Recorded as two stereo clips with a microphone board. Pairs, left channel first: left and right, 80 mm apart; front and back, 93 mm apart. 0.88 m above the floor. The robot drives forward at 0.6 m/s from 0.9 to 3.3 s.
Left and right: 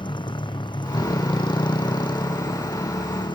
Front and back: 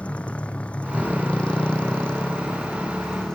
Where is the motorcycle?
75° left; by 3.4 s 80° left.